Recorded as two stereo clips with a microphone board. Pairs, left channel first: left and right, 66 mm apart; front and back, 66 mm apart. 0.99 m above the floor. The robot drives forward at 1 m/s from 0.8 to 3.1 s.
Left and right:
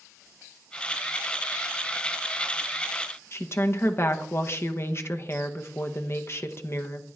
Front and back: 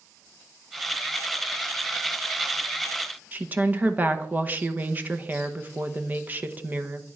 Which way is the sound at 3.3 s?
125° left.